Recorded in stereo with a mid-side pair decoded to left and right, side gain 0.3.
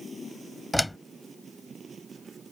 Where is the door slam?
10° left.